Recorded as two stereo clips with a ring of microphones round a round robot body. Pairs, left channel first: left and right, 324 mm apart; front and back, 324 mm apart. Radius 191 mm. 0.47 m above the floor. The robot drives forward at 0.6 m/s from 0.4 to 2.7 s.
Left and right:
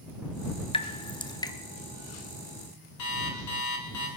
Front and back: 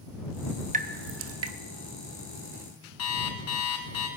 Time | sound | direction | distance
0.7 | dripping | 145° left | 0.8 m
3.0 | an alarm clock | 45° left | 2.5 m